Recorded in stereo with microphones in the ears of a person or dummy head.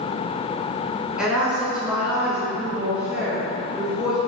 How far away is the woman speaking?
About 1.5 m.